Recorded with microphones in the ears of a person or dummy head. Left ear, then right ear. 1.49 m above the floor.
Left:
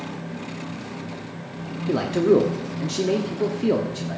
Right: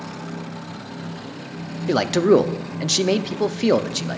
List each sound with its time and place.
1.9 s a man speaking: 40° right (ahead or behind), 0.6 m